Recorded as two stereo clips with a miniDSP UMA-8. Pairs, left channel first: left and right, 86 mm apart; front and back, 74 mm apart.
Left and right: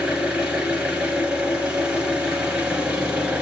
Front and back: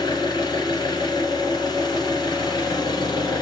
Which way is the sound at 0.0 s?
15° right.